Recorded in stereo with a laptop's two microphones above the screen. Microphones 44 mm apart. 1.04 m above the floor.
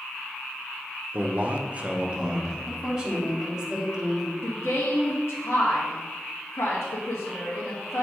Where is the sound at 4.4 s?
80° left, 1.3 m.